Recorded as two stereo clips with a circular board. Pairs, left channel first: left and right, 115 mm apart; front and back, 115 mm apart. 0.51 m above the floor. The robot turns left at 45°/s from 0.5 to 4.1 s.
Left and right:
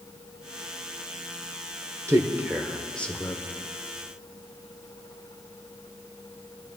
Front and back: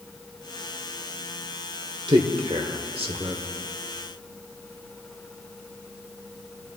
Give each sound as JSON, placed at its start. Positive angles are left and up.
{"t": 2.1, "sound": "a man speaking", "azimuth_deg": -150, "distance_m": 1.2}